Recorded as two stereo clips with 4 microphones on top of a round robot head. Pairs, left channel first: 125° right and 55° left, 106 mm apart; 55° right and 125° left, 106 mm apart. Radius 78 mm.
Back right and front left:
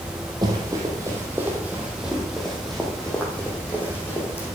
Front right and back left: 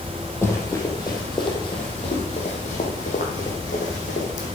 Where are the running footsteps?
10° left, 2.5 m; by 4.5 s 55° right, 3 m.